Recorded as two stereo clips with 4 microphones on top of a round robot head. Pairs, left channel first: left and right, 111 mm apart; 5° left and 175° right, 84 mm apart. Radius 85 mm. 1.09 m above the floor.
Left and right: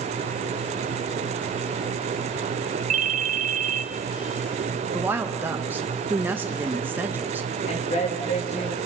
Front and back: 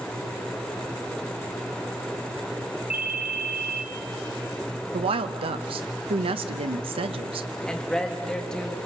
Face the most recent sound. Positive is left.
turn(degrees=85)